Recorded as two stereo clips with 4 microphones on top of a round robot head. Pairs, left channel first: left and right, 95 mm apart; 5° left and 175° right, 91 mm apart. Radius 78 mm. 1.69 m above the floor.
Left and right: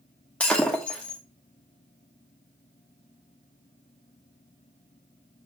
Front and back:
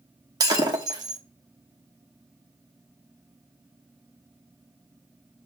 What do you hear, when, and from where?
0.4 s breaking glass: 165° left, 1.1 m